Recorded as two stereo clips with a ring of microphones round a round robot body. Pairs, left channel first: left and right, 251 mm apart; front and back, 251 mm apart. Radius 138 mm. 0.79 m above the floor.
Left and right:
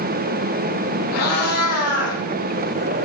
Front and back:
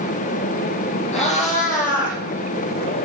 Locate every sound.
1.1 s a cat meowing: 65° left, 6 m; by 3.1 s 50° left, 6 m